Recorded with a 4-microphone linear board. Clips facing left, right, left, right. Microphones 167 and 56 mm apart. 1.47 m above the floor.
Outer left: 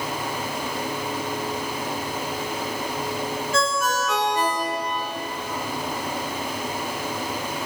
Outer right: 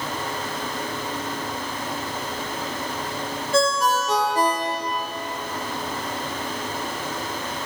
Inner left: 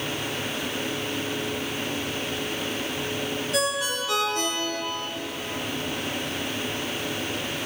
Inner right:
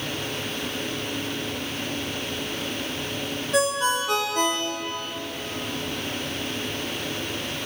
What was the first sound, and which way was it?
A ringtone, 35° right (ahead or behind).